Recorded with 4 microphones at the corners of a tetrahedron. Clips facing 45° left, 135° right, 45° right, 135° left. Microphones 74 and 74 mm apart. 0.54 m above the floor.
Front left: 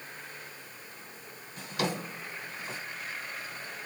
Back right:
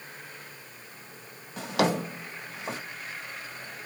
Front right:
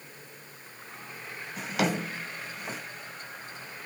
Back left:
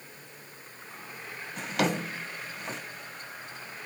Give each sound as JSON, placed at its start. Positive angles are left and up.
{"t": 1.6, "sound": "a drawer", "azimuth_deg": -135, "distance_m": 1.1}